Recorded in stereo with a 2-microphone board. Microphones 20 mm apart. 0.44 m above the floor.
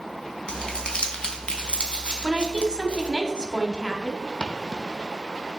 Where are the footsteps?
40° left (ahead or behind), 0.9 m.